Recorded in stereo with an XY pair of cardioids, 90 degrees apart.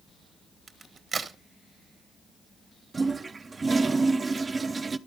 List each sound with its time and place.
0.7 s a crack: 45° right, 1.2 m
2.9 s a toilet flushing: 35° right, 0.6 m